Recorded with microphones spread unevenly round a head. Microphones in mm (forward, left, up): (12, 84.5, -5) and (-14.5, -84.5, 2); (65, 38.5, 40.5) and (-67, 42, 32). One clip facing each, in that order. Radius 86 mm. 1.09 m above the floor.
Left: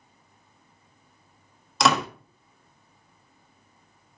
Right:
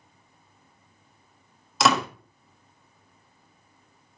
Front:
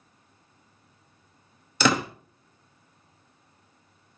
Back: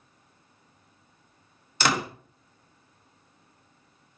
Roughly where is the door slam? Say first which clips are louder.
Even, front 3 dB; ahead.